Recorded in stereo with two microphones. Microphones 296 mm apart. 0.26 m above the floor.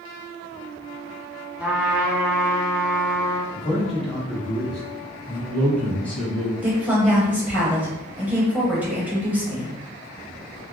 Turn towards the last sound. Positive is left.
turn(degrees=-5)  # may be behind; listen again after turning